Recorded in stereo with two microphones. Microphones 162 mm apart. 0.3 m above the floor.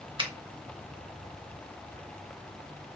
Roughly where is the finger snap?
Right.